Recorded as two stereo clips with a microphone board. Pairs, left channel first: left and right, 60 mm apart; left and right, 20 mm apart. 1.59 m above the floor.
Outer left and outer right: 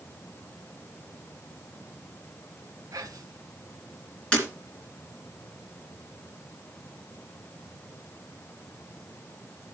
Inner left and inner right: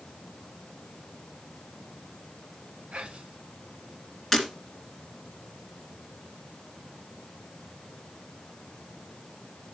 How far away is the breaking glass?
About 3 m.